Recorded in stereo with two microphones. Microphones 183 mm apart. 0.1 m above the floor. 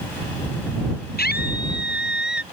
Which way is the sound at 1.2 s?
60° left (ahead or behind).